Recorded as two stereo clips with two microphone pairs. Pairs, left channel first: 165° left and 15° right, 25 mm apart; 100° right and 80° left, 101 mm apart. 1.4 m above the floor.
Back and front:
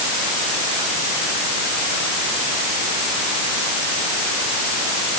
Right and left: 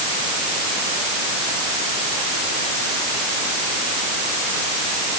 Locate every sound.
Only background noise.